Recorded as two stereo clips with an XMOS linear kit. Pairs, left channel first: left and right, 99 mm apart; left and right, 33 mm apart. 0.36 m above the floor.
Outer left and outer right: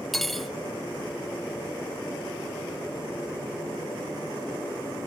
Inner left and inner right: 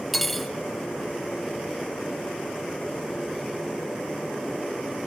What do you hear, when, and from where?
0.1 s cutlery clinking: centre (ahead or behind), 0.6 m